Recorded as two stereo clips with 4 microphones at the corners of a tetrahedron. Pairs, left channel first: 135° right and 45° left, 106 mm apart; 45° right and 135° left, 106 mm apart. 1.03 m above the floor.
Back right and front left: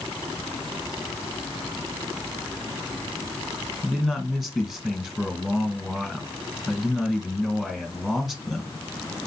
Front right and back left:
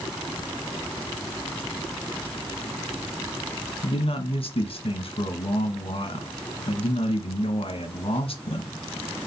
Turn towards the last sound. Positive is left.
turn(degrees=-40)